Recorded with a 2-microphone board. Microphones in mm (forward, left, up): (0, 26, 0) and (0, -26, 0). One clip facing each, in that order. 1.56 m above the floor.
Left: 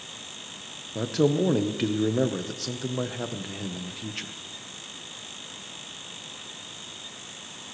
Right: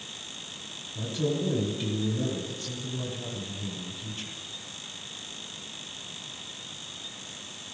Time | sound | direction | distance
0.9 | a man speaking | 75° left (ahead or behind) | 1.4 m